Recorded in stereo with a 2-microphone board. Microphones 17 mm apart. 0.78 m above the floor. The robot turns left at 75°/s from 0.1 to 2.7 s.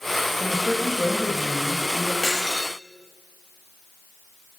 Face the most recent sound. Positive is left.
turn(degrees=115)